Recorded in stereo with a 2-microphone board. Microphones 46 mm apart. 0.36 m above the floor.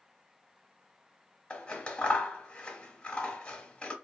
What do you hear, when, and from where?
1.5 s scissors: 25° left (ahead or behind), 0.8 m